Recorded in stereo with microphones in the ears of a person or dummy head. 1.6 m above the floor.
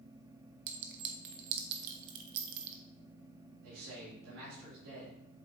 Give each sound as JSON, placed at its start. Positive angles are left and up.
{"t": 0.7, "sound": "a clink", "side_deg": -60, "distance_m": 0.9}
{"t": 3.6, "sound": "a man speaking", "side_deg": -80, "distance_m": 3.5}